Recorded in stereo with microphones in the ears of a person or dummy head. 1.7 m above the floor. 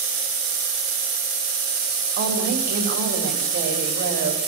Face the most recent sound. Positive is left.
turn(degrees=-55)  # may be behind; listen again after turning